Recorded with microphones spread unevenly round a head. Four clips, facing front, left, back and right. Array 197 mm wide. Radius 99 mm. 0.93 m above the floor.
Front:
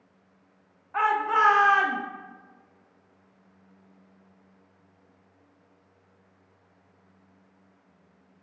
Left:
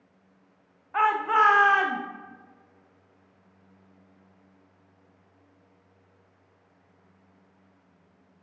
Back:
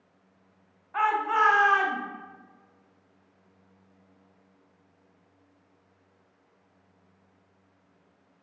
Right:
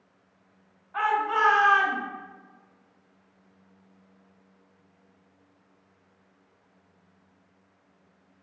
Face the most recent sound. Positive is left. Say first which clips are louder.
# left 3 dB, front 1 dB
turn(degrees=80)